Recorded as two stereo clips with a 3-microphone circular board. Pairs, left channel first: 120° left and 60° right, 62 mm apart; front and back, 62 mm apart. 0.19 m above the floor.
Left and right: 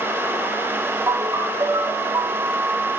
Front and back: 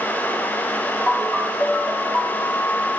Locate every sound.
1.1 s a ringtone: 50° right, 3.5 m